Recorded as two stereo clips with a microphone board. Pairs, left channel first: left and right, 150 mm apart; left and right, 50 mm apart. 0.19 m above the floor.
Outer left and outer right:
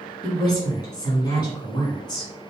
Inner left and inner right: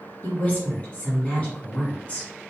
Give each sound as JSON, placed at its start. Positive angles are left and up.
{"t": 0.2, "sound": "a woman speaking", "side_deg": 25, "distance_m": 1.5}